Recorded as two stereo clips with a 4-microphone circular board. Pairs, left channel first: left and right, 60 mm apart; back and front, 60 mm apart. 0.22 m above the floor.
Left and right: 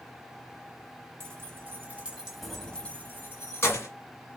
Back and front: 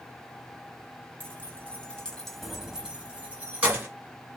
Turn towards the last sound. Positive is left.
turn(degrees=55)